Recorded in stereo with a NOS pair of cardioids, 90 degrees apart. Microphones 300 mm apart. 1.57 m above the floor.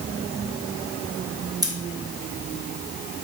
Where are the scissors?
10° right, 0.9 m.